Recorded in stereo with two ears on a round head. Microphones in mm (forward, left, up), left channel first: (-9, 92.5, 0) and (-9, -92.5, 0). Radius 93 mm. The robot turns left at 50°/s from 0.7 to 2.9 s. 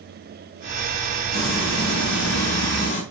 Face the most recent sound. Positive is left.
turn(degrees=45)